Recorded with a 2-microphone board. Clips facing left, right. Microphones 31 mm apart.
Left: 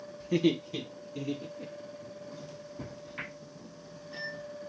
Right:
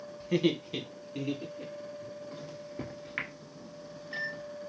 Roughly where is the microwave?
Right.